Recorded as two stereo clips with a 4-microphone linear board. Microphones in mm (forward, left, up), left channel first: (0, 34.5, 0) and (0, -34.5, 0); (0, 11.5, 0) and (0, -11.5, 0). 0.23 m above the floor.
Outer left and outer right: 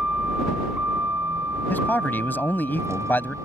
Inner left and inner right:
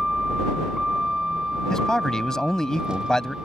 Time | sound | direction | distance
0.0 | a vehicle | 20° right (ahead or behind) | ?
1.7 | a man speaking | 30° left (ahead or behind) | ?